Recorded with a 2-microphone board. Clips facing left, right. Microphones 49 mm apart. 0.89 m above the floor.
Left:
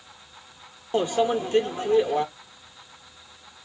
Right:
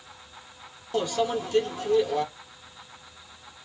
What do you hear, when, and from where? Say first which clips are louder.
0.9 s a microwave: left 3 dB; 30° left (ahead or behind), 0.8 m